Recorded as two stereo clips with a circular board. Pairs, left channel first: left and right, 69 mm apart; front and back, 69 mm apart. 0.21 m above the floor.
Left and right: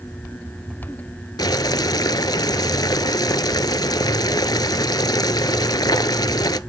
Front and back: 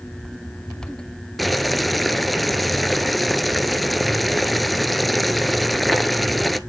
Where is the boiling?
90° left, 0.6 m.